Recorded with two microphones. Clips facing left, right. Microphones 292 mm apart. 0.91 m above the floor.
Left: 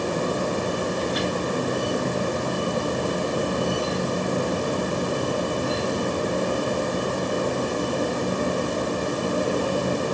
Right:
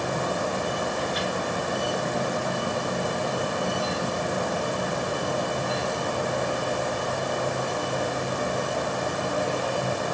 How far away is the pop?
No pop in this recording.